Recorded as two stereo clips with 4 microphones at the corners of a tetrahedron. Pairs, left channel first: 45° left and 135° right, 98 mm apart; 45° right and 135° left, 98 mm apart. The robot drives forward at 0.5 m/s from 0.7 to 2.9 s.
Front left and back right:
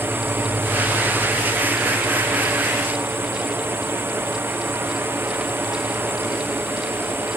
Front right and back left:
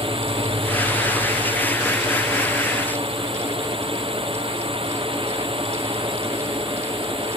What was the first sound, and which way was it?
A drone, 155° left.